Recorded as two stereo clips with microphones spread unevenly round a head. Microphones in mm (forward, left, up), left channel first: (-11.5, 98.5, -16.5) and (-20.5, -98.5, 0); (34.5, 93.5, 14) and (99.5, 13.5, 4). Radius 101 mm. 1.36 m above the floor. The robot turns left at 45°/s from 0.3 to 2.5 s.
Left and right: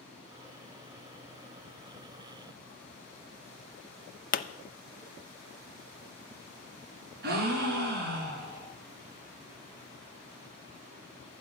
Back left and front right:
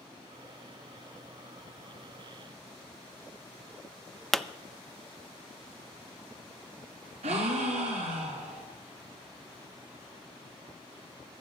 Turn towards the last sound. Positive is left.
turn(degrees=-60)